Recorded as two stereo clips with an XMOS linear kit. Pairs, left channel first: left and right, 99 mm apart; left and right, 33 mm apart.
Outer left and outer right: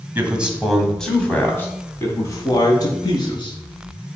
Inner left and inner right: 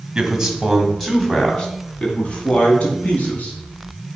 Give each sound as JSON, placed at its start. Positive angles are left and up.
{"t": 0.1, "sound": "a man speaking", "side_deg": -20, "distance_m": 1.9}